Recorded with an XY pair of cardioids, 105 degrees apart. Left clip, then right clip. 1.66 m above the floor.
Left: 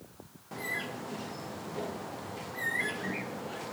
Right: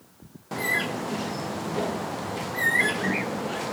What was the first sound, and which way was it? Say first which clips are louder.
A bird: right 10 dB; 60° right.